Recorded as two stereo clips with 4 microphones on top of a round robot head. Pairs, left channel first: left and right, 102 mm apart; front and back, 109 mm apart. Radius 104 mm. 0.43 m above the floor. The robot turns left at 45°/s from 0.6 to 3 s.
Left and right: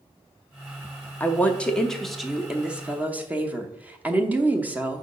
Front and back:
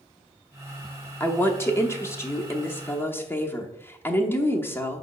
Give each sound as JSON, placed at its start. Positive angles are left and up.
{"t": 1.2, "sound": "a woman speaking", "azimuth_deg": 45, "distance_m": 0.9}